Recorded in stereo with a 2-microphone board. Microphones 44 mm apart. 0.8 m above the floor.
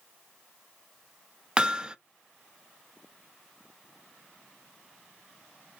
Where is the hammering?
20° right (ahead or behind), 0.6 m.